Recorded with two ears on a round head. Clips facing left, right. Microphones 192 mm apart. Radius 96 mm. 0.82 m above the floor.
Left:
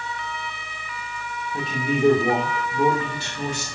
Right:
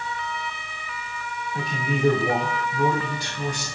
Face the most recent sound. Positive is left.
turn(degrees=25)  # may be behind; listen again after turning